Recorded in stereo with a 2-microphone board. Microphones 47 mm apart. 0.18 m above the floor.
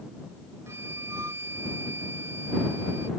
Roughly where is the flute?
Right.